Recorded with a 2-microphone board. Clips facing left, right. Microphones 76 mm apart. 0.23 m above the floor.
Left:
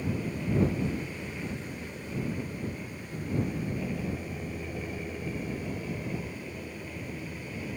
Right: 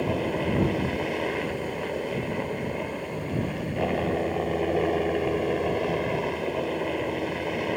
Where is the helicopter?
75° right (ahead or behind).